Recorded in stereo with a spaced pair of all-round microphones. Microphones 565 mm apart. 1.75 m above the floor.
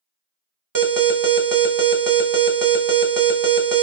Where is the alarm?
40° right (ahead or behind), 0.7 m.